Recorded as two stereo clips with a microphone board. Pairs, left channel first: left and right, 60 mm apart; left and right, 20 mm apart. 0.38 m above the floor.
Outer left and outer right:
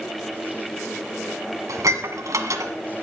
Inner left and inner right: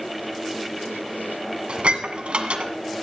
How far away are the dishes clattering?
About 1.9 m.